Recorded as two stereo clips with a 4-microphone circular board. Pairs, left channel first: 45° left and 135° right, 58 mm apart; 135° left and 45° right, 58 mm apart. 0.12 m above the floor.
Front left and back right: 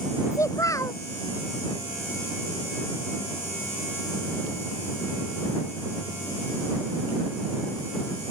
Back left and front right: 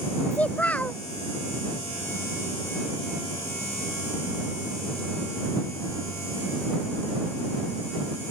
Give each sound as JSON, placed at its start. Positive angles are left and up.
{"t": 0.3, "sound": "a child speaking", "azimuth_deg": 70}